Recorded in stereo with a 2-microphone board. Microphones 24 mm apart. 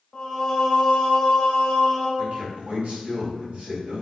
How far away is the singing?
About 0.6 m.